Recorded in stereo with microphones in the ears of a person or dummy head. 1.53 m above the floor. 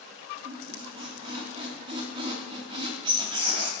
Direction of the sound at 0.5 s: 30° right (ahead or behind).